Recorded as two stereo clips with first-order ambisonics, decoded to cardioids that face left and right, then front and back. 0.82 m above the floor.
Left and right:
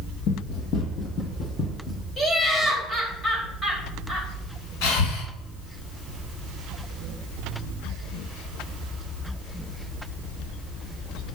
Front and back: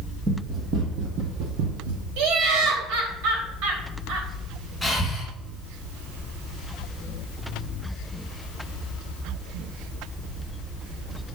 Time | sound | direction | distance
0.3 | running footsteps | 115° left | 1.5 m
2.2 | laughter | 165° left | 3.5 m
4.8 | breathing | 95° left | 3.5 m